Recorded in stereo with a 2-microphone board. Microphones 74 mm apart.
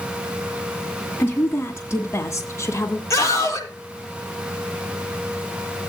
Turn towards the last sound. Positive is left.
turn(degrees=40)  # may be behind; listen again after turning